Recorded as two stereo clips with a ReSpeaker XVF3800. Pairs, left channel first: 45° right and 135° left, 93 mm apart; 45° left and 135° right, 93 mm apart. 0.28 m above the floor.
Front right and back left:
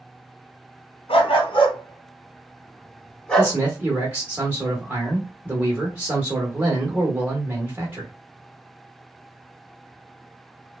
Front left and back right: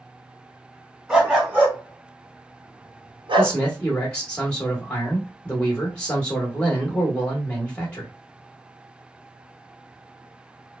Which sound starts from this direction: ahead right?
A dog barking, at 1.1 s.